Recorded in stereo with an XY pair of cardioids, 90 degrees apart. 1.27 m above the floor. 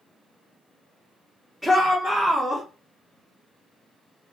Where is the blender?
I don't hear a blender.